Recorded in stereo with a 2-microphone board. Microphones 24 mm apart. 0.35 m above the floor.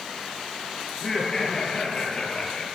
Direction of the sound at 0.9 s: 20° left (ahead or behind).